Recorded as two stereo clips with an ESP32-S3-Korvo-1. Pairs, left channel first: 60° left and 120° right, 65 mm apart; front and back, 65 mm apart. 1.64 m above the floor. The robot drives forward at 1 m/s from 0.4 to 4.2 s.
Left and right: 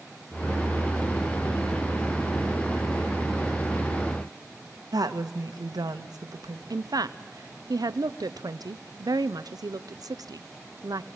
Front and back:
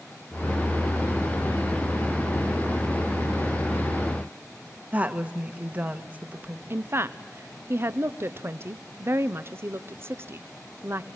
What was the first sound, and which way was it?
A woman speaking, 115° right.